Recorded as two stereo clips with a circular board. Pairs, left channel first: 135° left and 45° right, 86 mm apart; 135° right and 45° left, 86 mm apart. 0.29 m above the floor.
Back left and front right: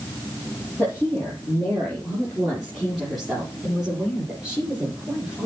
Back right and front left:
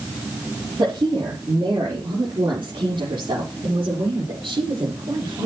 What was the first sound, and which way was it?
A woman speaking, 55° left.